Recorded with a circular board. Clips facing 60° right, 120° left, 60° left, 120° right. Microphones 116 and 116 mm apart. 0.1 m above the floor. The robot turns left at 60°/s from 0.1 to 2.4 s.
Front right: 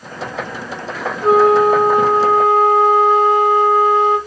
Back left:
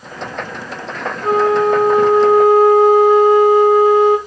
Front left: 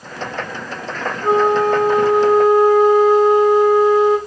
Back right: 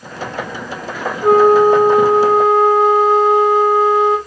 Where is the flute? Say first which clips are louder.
Front right 3 dB, back right 6 dB; 120° right, 3 m; by 4.2 s 170° left, 3 m.